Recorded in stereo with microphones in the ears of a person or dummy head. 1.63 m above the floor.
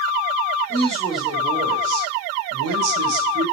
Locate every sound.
0.7 s a woman speaking: 10° left (ahead or behind), 1.4 m; by 3.5 s 70° right (ahead or behind), 1.6 m